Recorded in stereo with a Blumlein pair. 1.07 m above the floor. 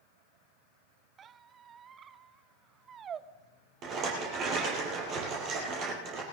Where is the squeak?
25° right, 0.6 m.